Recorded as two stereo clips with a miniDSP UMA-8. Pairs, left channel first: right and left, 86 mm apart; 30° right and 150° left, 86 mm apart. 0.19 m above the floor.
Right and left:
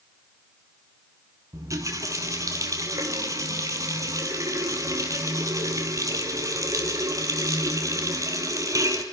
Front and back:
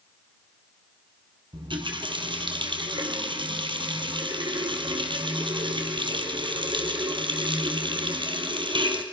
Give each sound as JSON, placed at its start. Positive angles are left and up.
{"t": 1.5, "sound": "a running tap", "azimuth_deg": 140, "distance_m": 3.5}